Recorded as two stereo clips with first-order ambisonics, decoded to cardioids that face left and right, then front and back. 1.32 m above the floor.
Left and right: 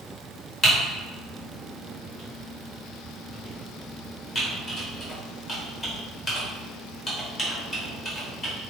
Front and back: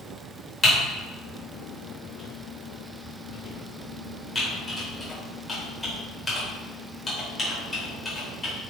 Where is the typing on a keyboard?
55° left, 1.0 m.